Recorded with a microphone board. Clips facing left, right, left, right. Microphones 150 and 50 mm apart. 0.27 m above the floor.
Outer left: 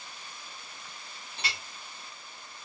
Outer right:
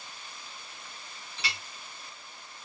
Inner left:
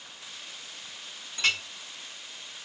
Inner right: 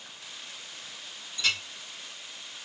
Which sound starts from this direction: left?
A clink, at 1.4 s.